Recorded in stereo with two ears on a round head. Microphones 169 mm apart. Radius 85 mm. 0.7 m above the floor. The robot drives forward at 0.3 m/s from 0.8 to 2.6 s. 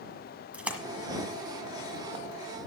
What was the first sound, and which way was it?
A splash, 5° right (ahead or behind).